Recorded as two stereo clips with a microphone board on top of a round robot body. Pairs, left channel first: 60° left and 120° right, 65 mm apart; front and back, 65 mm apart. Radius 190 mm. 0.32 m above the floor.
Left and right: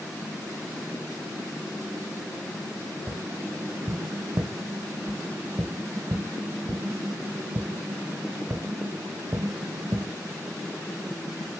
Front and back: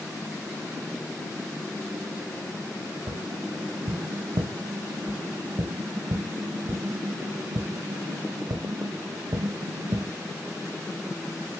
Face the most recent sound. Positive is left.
turn(degrees=-170)